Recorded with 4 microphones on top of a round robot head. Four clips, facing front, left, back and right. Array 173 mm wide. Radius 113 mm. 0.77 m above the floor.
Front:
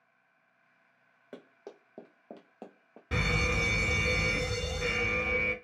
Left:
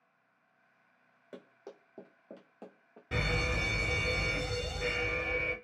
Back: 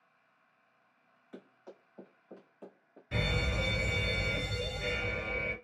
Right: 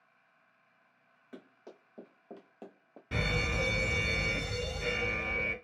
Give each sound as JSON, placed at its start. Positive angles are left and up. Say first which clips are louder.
{"t": 1.3, "sound": "running footsteps", "louder": "left 2 dB, front 3 dB", "azimuth_deg": 15, "distance_m": 1.6}
{"t": 3.1, "sound": "a fire alarm", "louder": "even, front 3 dB", "azimuth_deg": 0, "distance_m": 2.5}